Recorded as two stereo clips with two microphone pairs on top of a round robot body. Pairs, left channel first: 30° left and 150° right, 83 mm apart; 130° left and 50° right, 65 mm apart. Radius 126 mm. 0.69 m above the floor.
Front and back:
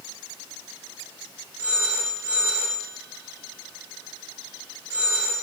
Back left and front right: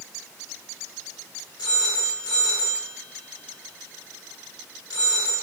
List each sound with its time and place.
1.6 s a phone ringing: 145° left, 9 m